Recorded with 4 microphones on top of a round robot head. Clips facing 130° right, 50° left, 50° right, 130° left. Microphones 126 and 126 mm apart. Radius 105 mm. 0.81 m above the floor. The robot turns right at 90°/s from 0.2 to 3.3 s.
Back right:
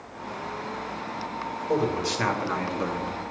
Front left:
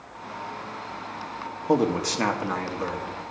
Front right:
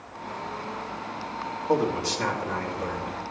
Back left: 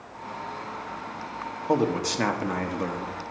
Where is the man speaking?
60° left, 1.2 m; by 3.1 s 170° right, 1.2 m.